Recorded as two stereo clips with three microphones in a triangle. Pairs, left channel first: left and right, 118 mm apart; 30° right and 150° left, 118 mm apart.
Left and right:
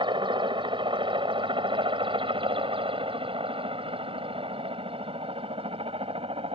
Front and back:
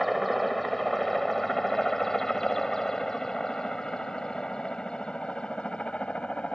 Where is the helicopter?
120° right; by 6.5 s 110° right.